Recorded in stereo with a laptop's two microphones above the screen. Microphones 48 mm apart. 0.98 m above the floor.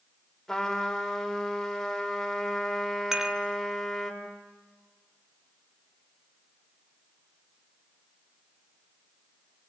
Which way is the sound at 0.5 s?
10° left (ahead or behind).